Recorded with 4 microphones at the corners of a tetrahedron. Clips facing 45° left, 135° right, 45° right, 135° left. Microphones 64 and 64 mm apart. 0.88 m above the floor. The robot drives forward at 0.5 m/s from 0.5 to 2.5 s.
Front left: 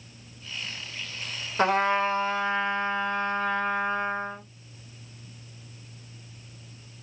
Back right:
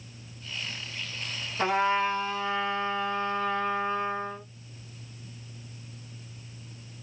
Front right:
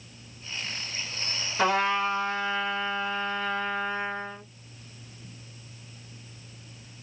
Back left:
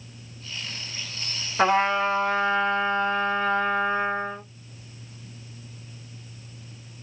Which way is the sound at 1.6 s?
75° left.